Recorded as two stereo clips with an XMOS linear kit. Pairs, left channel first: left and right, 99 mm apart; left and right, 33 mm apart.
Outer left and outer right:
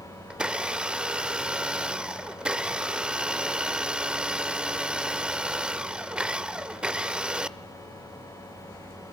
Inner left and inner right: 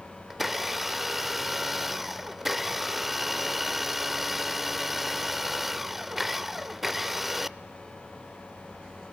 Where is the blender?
10° right (ahead or behind), 0.5 m.